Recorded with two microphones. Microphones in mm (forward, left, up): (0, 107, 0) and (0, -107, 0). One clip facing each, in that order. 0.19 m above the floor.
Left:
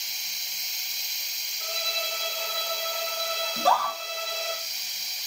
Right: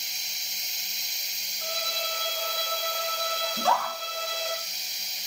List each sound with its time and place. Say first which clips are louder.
1.6 s a violin: right 1 dB; 30° left (ahead or behind), 5.5 m
3.6 s a scream: left 3 dB; 40° left (ahead or behind), 4.5 m